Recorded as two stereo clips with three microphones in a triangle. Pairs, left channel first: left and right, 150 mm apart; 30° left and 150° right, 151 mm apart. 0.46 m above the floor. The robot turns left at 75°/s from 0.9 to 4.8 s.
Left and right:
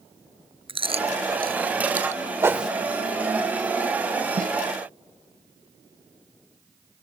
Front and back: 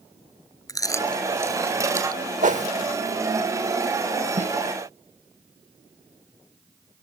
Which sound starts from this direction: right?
A snare drum, at 4.4 s.